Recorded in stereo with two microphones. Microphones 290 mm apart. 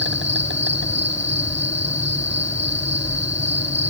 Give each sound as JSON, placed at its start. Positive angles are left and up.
{"t": 0.0, "sound": "an insect", "side_deg": -40}